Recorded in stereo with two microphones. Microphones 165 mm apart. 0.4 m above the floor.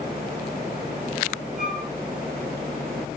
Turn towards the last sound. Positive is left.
turn(degrees=-5)  # may be behind; listen again after turning